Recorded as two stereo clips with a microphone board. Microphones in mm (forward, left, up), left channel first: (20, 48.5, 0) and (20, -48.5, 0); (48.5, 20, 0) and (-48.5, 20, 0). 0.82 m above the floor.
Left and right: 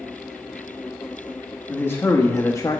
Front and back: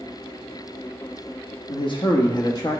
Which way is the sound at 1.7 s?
20° left.